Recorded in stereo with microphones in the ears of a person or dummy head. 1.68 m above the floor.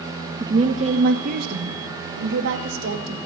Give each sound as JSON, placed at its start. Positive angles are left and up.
{"t": 0.4, "sound": "a woman speaking", "side_deg": -20, "distance_m": 0.6}